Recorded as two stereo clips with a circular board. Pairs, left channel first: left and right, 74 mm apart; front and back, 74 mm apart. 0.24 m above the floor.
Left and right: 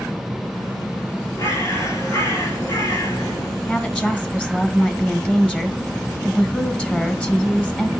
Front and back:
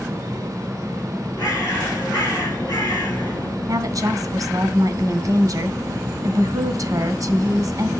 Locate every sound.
1.4 s a bird: 40° left, 7.5 m
3.7 s a woman speaking: 160° left, 2 m